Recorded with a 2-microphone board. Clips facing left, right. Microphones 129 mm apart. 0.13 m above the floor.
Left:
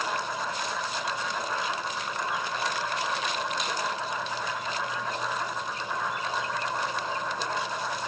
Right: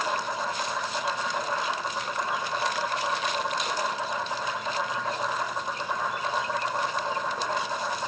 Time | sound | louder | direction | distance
0.0 | an insect | right 2 dB | 15° right (ahead or behind) | 5 m